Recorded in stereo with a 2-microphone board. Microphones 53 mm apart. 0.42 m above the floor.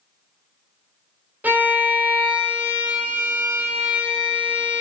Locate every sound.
1.4 s a violin: 35° right (ahead or behind), 1.5 m